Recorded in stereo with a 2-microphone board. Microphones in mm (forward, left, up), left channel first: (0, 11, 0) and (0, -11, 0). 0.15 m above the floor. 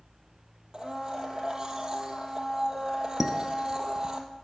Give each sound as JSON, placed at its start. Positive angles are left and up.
{"t": 0.7, "sound": "a blender", "side_deg": -25, "distance_m": 1.2}
{"t": 3.2, "sound": "dishes clattering", "side_deg": -25, "distance_m": 0.7}